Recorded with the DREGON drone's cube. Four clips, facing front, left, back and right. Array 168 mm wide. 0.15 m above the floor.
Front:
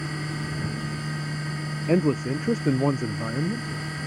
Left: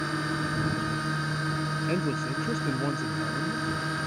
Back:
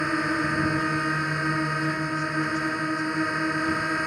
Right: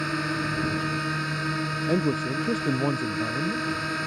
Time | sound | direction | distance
0.0 | a drone | 165° right | ?
1.9 | a man speaking | 20° right | ?